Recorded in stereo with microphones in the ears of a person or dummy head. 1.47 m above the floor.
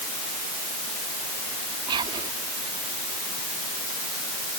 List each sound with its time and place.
1.9 s whispering: 30° right (ahead or behind)